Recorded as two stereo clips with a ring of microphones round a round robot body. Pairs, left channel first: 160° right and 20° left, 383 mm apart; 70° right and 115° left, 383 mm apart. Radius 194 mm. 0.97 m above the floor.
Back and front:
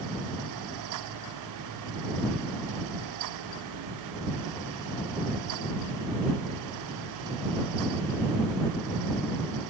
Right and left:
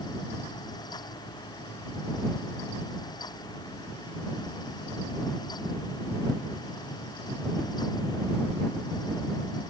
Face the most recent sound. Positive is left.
No sound to turn to.